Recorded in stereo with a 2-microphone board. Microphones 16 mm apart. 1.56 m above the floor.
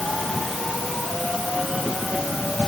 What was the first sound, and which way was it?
Only background noise.